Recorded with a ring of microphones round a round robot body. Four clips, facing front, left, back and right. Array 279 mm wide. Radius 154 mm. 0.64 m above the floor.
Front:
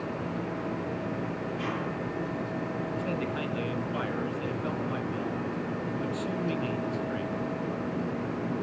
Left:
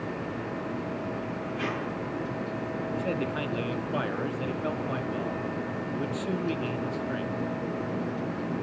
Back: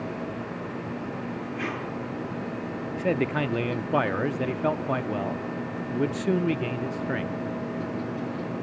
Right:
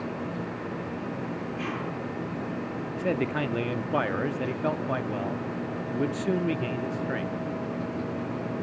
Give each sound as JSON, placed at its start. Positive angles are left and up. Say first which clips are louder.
{"t": 1.6, "sound": "tape being pulled", "louder": "left 3 dB, back 1 dB", "azimuth_deg": 150, "distance_m": 10.0}
{"t": 3.0, "sound": "a man speaking", "louder": "right 5 dB, back 10 dB", "azimuth_deg": -160, "distance_m": 1.0}